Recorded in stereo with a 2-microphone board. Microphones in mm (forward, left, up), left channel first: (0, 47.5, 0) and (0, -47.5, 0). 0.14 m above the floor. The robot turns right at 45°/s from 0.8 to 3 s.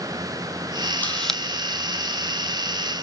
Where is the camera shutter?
20° left (ahead or behind), 1.6 m; by 1.4 s centre (ahead or behind), 1.6 m.